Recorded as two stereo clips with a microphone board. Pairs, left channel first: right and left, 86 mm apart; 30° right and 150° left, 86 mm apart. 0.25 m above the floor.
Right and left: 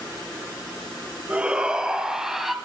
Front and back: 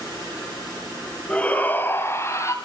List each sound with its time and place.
1.3 s a shout: 30° left, 1.2 m; by 2.5 s 5° left, 1.6 m